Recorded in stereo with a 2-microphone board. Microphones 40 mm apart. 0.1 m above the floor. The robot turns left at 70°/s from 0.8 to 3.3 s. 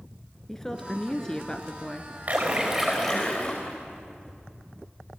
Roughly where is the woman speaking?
Centre.